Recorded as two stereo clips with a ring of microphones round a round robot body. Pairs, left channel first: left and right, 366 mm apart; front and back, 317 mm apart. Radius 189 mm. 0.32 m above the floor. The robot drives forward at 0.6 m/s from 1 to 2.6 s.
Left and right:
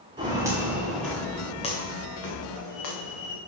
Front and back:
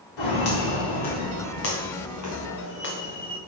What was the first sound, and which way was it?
Footsteps, 10° right.